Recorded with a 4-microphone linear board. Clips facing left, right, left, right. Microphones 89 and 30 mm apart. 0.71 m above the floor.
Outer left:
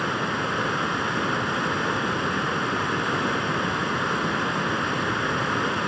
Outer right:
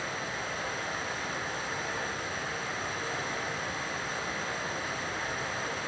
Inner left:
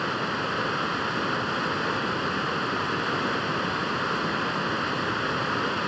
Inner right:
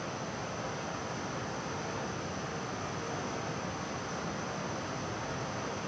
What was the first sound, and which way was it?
Running water, 70° left (ahead or behind).